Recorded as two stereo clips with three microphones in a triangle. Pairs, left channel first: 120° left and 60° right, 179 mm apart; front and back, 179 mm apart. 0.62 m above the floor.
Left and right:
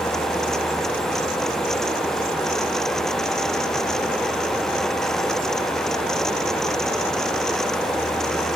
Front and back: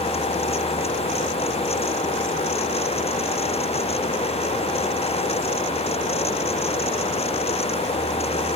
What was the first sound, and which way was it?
Only background noise.